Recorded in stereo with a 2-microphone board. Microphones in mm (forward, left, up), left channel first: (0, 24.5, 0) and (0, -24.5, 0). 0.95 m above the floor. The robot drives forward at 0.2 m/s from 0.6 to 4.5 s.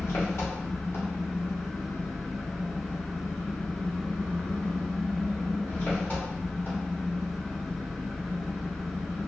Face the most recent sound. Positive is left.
turn(degrees=40)  # may be behind; listen again after turning